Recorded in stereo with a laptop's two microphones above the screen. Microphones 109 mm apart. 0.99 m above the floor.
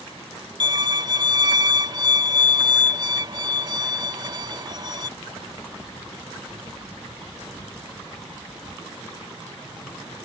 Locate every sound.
0.6 s a violin: 45° right (ahead or behind)